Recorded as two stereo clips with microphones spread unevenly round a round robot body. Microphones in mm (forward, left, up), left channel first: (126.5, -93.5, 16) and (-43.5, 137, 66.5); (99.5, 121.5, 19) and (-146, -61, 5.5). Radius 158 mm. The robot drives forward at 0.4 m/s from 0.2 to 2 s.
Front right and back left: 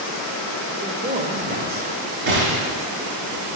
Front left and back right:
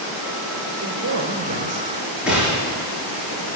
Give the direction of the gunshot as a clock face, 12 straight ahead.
8 o'clock.